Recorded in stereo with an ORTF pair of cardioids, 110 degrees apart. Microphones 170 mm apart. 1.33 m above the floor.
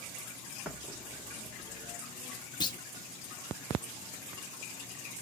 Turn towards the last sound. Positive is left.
turn(degrees=25)